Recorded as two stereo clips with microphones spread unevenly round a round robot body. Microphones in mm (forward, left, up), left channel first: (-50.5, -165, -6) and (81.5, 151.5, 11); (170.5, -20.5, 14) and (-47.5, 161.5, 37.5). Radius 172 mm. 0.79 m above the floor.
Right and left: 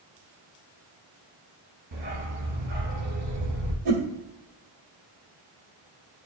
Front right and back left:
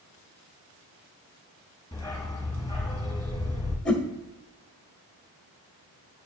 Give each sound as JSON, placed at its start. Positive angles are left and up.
{"t": 1.9, "sound": "a dog barking", "azimuth_deg": 40, "distance_m": 2.5}
{"t": 3.9, "sound": "a whoosh", "azimuth_deg": 50, "distance_m": 1.8}